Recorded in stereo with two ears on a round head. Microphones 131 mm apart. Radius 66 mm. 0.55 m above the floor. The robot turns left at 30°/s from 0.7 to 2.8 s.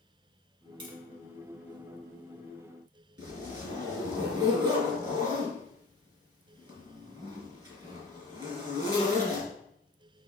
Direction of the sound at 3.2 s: 30° right (ahead or behind).